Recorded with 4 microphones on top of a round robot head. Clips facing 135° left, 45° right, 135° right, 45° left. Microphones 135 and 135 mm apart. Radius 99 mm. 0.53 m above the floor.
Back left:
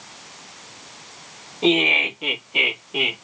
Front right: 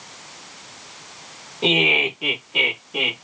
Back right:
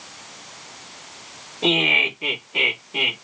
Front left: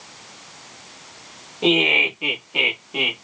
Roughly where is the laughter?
Ahead.